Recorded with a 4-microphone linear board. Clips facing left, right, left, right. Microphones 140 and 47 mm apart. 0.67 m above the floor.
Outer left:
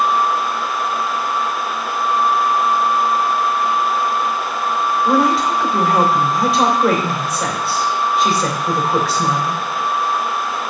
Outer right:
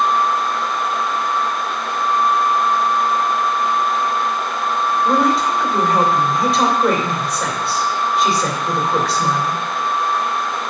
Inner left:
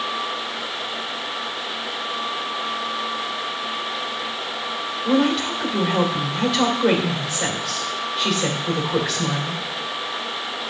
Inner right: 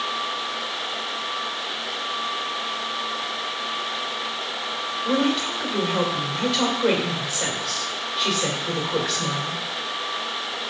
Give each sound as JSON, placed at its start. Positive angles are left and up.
{"t": 5.0, "sound": "a woman speaking", "side_deg": 0, "distance_m": 2.5}